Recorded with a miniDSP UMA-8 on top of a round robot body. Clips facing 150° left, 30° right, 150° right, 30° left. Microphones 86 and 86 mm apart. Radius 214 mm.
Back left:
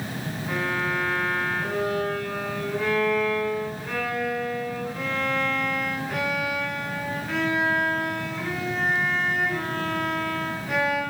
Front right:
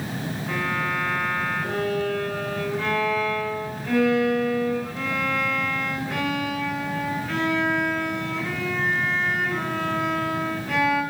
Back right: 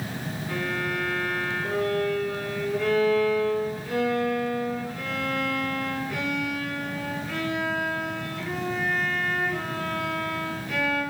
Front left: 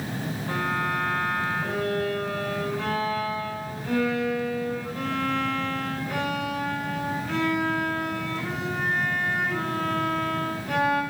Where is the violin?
65° left, 6 m.